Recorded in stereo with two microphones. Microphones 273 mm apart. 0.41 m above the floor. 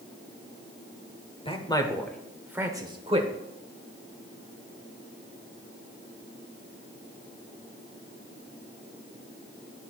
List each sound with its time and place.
1.4 s a man speaking: 20° left (ahead or behind), 1.2 m; by 3.3 s 25° right (ahead or behind), 1.2 m